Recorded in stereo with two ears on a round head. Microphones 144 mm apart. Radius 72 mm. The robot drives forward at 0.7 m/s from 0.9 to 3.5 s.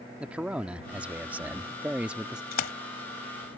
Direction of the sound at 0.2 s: 5° right (ahead or behind).